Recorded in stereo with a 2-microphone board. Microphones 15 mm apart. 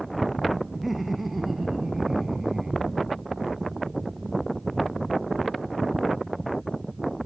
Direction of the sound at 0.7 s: 10° right (ahead or behind).